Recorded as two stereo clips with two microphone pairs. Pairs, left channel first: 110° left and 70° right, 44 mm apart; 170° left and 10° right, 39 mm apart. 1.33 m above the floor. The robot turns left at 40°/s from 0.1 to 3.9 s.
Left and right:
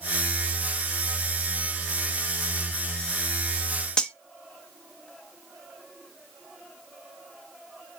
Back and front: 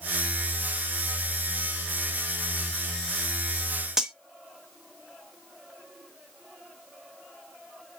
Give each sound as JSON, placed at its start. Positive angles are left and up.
{"t": 4.0, "sound": "cutlery clinking", "azimuth_deg": 55, "distance_m": 0.5}